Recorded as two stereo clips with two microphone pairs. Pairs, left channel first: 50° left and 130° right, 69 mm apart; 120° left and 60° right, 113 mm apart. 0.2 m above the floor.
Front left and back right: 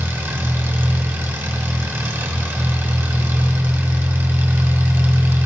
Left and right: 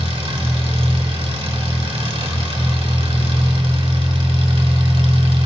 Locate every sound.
0.0 s an engine running: 85° right, 2 m